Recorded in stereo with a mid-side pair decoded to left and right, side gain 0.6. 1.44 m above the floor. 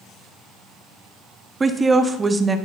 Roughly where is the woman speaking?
Ahead right.